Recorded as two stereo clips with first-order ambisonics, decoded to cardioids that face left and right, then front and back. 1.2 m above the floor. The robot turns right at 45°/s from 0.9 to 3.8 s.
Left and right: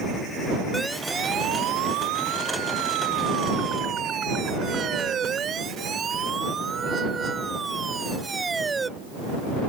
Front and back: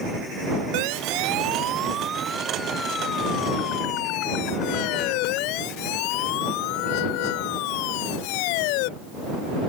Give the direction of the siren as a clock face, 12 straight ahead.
6 o'clock.